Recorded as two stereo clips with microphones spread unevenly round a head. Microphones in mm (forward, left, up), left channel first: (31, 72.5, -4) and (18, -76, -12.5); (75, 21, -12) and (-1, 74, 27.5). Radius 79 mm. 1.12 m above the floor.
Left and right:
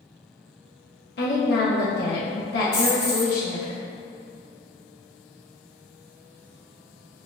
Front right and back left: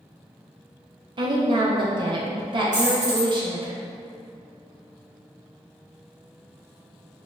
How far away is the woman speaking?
About 0.6 m.